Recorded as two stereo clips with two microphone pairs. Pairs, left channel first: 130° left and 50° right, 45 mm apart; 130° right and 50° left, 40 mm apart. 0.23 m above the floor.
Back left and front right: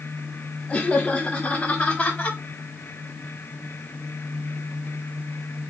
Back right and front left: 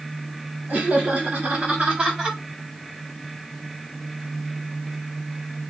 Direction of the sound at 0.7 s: 65° left.